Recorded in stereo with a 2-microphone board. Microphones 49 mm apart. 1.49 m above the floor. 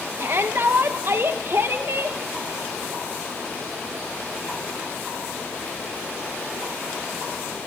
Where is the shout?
55° right (ahead or behind), 1.7 m.